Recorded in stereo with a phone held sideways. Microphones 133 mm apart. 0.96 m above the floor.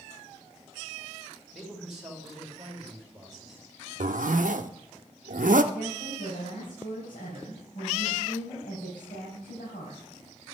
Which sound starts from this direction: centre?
A man speaking, at 1.5 s.